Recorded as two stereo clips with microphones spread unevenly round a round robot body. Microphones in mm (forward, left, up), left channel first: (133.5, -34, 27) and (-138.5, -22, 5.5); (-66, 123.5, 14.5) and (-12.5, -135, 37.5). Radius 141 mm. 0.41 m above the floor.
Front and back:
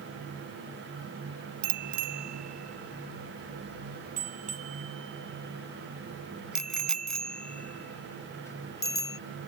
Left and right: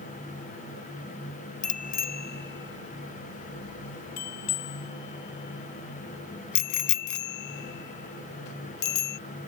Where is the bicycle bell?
165° left; by 9.2 s 75° left.